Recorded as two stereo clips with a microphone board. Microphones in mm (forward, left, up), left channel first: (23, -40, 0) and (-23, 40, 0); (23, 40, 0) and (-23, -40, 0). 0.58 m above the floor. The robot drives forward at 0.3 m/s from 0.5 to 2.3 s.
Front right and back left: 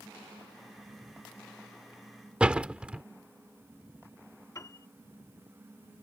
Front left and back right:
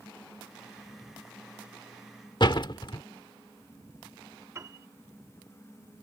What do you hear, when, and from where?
2.4 s a door slam: 45° left
4.5 s a piano: 85° right